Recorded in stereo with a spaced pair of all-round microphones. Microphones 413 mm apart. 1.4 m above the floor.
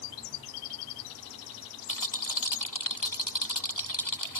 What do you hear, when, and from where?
1.9 s a rattle: 50° left (ahead or behind)